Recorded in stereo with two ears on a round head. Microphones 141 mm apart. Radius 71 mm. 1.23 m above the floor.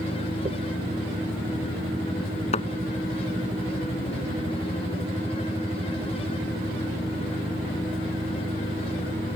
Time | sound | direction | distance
0.5 | a dropped coin | 40° right (ahead or behind) | ?
2.5 | a thud | 45° left (ahead or behind) | ?